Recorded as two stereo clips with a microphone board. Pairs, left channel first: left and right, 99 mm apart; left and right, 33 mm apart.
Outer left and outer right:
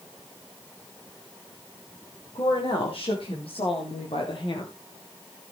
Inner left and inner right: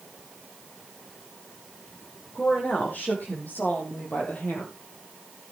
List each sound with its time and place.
2.4 s a woman speaking: 70° left (ahead or behind), 5 m; by 4.7 s 55° left (ahead or behind), 3.5 m